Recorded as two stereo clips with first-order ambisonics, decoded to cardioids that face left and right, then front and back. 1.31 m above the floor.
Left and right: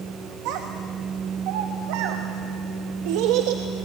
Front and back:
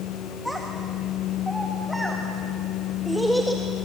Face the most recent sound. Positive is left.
turn(degrees=-90)